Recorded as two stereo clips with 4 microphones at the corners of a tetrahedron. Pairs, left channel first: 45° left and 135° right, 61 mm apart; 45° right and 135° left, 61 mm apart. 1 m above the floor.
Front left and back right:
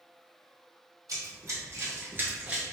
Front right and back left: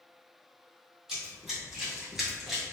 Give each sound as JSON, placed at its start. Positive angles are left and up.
{"t": 1.1, "sound": "running footsteps", "azimuth_deg": -145, "distance_m": 1.9}